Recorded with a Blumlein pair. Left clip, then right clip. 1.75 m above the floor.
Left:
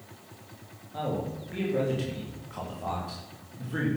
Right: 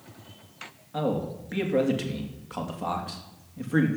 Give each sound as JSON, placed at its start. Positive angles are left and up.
{"t": 0.9, "sound": "a man speaking", "azimuth_deg": -25, "distance_m": 3.0}